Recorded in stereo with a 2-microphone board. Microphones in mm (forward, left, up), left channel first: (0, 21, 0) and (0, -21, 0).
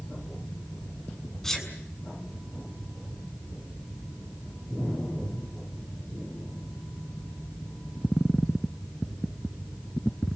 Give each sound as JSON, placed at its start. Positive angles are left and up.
{"t": 1.4, "sound": "a sneeze", "side_deg": 10, "distance_m": 7.0}